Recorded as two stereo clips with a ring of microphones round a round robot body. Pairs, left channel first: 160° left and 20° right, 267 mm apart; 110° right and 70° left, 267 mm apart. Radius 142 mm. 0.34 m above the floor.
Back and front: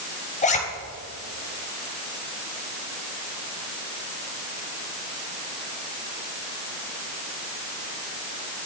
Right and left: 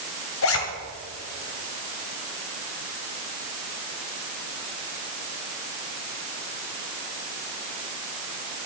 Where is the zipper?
140° right, 2 m.